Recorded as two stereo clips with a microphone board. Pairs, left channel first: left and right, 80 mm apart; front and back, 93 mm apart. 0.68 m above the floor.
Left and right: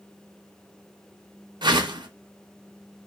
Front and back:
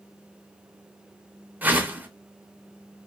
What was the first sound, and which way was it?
A whoosh, 110° right.